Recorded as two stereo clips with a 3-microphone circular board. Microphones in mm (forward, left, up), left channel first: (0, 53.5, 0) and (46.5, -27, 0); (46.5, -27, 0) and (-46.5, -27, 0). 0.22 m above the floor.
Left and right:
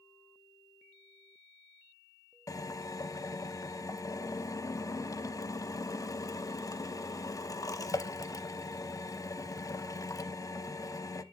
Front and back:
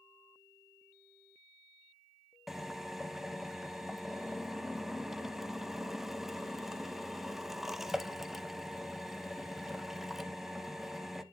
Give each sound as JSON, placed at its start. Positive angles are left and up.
{"t": 2.5, "sound": "a drill", "azimuth_deg": 95, "distance_m": 0.5}